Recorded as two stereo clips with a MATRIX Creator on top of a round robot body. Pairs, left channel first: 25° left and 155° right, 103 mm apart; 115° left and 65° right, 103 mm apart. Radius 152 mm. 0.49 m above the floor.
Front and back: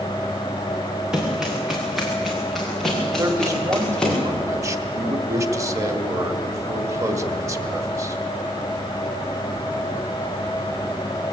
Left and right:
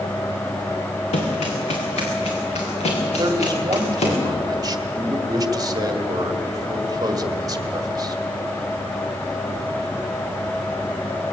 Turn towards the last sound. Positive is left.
turn(degrees=-105)